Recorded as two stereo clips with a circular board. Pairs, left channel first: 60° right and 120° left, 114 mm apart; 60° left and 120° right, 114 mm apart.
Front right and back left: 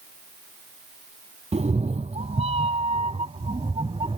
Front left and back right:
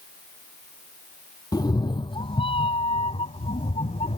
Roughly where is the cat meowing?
Behind left.